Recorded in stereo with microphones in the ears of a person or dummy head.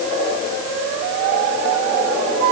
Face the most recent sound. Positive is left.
No sound to turn to.